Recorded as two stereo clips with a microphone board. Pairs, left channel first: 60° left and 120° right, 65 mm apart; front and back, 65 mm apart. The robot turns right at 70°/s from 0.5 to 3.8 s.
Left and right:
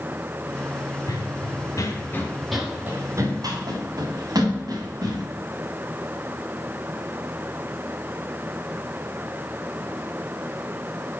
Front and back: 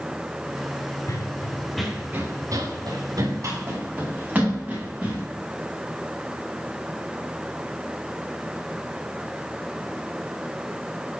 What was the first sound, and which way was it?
Running footsteps, 30° left.